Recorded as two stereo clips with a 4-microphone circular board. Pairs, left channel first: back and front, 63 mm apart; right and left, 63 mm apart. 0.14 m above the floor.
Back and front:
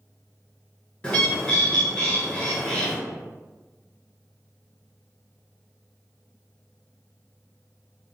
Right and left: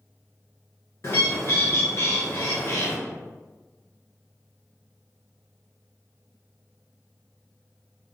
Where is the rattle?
I don't hear a rattle.